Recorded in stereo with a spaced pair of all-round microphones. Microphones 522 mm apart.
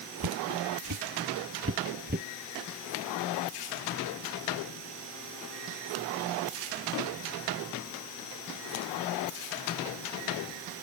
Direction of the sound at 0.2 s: 45° right (ahead or behind).